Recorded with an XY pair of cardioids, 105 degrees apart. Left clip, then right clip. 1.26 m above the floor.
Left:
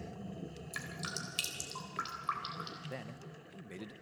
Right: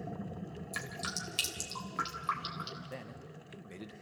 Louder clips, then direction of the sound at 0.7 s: Right 3 dB; 10° right.